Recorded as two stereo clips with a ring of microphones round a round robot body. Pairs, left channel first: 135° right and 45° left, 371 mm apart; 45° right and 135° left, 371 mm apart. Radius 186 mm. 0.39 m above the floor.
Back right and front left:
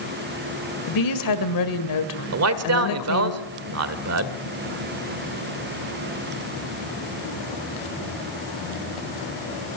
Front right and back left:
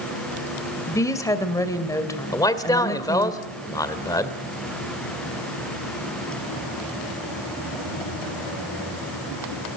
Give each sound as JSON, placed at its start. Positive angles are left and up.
{"t": 0.9, "sound": "a woman speaking", "azimuth_deg": -125, "distance_m": 1.9}
{"t": 2.3, "sound": "a man speaking", "azimuth_deg": 30, "distance_m": 1.8}